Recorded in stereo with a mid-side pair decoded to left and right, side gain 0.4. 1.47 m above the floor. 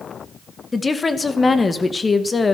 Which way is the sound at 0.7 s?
30° left.